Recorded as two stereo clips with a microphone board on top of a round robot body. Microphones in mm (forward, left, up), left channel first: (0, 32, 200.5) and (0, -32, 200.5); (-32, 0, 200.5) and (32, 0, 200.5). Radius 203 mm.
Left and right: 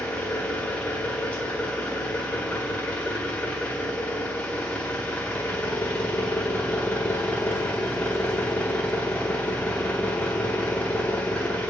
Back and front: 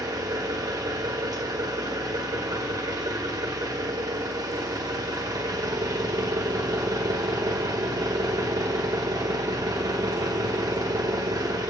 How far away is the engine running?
About 1.6 m.